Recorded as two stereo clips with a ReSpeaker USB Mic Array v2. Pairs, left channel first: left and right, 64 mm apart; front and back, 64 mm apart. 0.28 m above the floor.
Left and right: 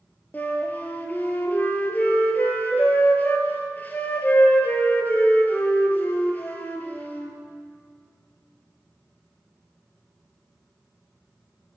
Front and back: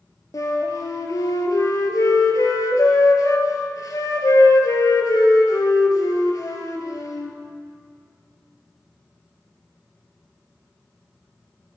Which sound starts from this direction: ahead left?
A flute, at 0.3 s.